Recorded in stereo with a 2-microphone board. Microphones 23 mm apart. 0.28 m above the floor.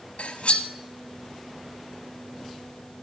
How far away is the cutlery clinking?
About 1.3 m.